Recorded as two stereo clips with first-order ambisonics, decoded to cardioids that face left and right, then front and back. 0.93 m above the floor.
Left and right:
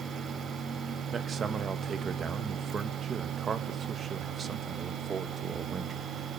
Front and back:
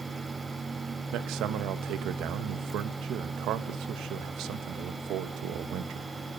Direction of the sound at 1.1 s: 155° right.